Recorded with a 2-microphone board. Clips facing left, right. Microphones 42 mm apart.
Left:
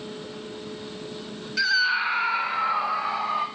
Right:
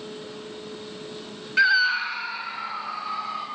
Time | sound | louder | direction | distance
1.6 | a scream | right 3 dB | 30° right (ahead or behind) | 0.9 m